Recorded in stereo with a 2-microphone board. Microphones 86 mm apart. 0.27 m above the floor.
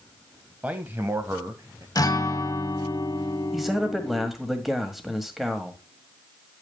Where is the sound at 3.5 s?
Centre (ahead or behind), 1.6 m.